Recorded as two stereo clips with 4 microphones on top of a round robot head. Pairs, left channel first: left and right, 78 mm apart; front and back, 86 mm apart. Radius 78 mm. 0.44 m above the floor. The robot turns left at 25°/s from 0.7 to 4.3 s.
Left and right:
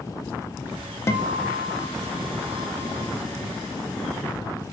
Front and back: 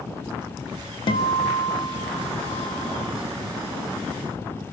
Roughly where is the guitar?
Ahead left.